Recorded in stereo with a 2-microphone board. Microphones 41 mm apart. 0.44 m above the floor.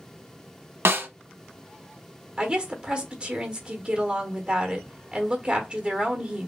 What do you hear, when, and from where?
0.8 s a snare drum: 85° right, 0.7 m
2.4 s a woman speaking: 25° right (ahead or behind), 1.0 m